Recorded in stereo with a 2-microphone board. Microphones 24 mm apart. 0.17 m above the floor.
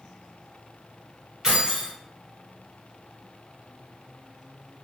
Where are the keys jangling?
15° right (ahead or behind), 1.5 m.